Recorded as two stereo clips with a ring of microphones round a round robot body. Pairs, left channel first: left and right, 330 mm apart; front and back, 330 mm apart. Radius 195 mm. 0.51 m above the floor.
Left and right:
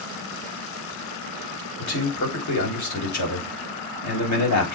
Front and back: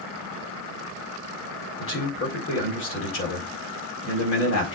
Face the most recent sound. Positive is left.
turn(degrees=55)